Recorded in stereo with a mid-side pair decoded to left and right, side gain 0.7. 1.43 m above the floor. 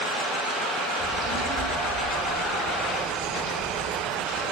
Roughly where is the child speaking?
Ahead.